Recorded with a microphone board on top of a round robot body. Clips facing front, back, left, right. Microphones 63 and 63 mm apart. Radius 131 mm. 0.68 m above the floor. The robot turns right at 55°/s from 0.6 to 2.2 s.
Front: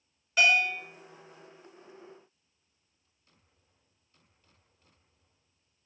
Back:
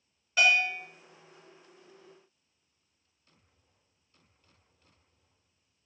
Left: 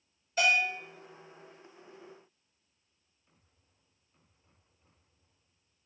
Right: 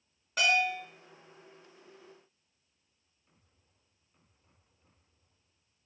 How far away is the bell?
About 1.7 m.